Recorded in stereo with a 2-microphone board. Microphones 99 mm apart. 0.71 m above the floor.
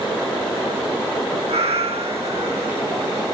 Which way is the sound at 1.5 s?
80° right.